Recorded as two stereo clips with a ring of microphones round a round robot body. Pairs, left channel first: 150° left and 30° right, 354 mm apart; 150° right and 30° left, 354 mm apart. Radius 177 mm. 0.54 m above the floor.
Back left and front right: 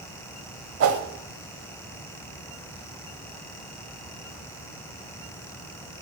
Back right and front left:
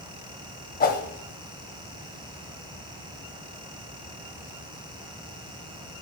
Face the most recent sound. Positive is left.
turn(degrees=-85)